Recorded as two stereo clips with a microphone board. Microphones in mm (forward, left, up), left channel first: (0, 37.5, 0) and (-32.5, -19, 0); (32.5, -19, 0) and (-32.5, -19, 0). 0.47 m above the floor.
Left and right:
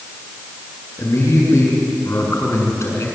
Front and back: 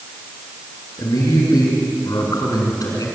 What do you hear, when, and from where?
1.0 s a man speaking: 15° left, 7.5 m